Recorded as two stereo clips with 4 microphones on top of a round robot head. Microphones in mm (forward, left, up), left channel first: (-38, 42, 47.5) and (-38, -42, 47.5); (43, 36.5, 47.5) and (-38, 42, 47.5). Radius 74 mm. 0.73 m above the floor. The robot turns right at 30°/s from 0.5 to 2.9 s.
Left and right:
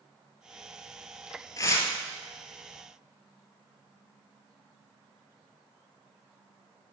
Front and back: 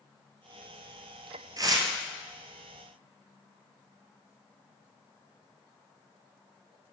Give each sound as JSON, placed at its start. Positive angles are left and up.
{"t": 1.6, "sound": "tearing paper", "azimuth_deg": 135, "distance_m": 2.5}